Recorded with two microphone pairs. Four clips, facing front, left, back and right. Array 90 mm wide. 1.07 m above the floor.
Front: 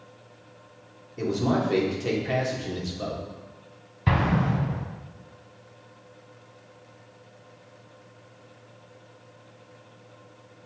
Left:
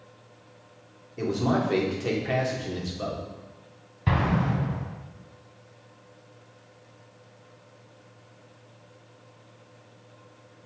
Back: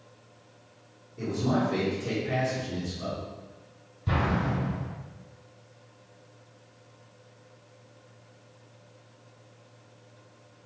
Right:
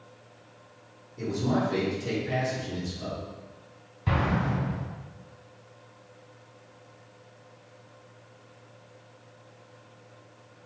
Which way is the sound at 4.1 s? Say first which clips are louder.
Left 2 dB, front 4 dB; 15° left.